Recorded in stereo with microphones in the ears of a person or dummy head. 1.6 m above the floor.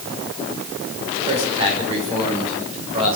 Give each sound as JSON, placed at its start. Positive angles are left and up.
{"t": 1.3, "sound": "a man speaking", "side_deg": -25, "distance_m": 6.5}